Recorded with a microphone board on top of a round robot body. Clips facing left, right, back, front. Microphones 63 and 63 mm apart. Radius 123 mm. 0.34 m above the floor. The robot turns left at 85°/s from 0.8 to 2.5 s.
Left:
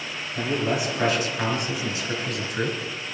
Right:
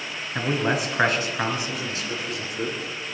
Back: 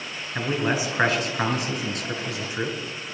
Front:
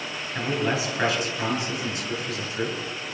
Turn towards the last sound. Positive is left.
turn(degrees=115)